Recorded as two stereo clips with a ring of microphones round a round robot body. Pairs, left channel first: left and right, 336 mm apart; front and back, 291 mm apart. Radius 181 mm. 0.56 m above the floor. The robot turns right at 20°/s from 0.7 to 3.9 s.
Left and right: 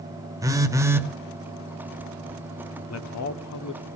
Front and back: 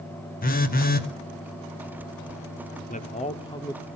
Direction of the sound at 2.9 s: 60° left.